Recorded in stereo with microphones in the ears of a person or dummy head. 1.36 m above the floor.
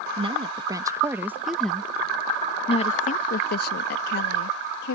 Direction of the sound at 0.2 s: 25° right (ahead or behind).